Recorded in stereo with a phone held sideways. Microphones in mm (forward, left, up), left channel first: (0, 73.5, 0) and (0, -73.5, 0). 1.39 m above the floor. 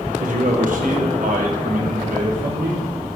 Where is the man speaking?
60° right (ahead or behind), 1.1 m; by 2.9 s 70° right (ahead or behind), 3 m.